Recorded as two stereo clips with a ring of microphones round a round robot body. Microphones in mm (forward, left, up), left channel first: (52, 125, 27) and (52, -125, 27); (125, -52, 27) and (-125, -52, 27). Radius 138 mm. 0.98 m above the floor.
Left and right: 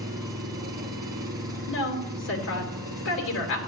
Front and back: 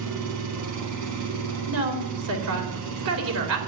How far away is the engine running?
About 2.5 m.